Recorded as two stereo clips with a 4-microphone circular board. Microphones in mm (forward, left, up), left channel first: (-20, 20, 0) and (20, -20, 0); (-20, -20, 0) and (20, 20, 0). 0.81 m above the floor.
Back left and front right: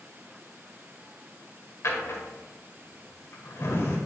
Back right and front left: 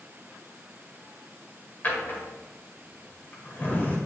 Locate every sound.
1.8 s a drawer: 170° left, 1.5 m